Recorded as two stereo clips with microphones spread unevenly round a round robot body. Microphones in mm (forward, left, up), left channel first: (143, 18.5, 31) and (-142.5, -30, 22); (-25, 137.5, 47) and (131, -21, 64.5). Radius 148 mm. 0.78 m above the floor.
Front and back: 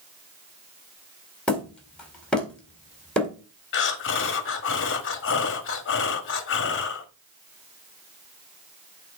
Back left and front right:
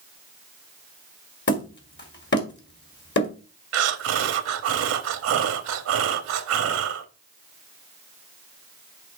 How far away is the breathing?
About 1.0 m.